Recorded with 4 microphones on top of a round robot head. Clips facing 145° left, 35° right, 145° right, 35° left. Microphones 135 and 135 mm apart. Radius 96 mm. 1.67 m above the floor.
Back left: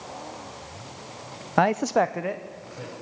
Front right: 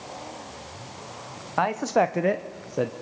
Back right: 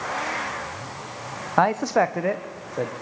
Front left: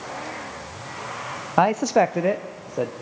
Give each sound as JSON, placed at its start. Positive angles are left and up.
{"t": 1.6, "sound": "a man speaking", "azimuth_deg": 110, "distance_m": 0.6}